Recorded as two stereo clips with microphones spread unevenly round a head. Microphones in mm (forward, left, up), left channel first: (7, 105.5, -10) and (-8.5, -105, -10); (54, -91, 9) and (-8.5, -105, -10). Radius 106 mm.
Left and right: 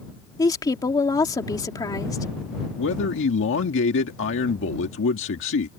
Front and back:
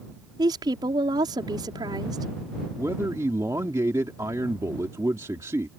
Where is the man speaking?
120° left.